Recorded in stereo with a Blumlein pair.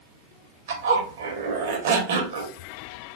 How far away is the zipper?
About 0.7 m.